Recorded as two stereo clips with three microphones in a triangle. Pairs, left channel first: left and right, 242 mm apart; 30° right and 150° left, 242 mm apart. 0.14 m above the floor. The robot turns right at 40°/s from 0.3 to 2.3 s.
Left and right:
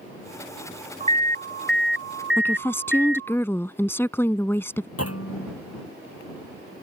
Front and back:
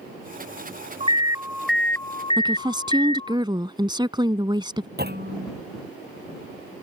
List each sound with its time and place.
1.0 s an alarm: 150° right; by 3.4 s 95° right
2.4 s a woman speaking: 150° left
5.0 s a clunk: 105° left